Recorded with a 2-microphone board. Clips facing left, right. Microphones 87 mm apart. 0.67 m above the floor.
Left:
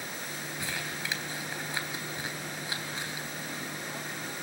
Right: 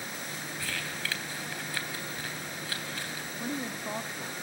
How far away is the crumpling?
About 3 m.